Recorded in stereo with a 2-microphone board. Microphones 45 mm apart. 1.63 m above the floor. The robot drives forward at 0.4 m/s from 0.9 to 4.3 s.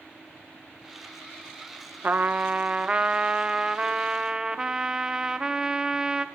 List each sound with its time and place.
2.0 s a trumpet: 40° right (ahead or behind), 0.6 m; by 6.2 s 15° right (ahead or behind), 1.4 m